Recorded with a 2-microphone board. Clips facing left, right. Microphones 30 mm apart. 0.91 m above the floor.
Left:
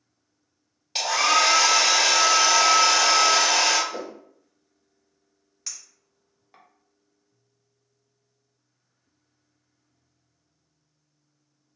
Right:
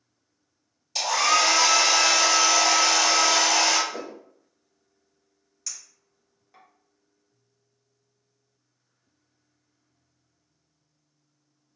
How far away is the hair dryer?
About 1.2 m.